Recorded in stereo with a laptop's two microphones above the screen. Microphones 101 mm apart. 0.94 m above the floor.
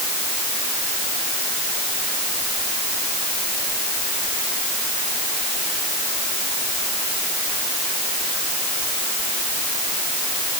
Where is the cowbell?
I don't hear a cowbell.